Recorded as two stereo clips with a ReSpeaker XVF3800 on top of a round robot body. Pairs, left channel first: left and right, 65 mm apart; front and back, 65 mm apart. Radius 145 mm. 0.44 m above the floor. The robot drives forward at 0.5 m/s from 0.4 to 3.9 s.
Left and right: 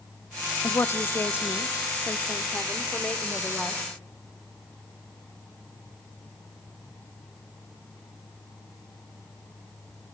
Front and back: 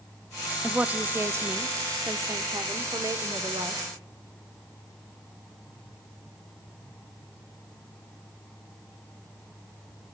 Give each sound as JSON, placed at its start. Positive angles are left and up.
{"t": 0.6, "sound": "a woman speaking", "azimuth_deg": 110, "distance_m": 0.9}